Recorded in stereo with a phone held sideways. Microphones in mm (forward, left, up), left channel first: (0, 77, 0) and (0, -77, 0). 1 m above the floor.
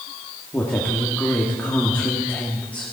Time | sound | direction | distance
0.5 | a woman speaking | 10° left (ahead or behind) | 2 m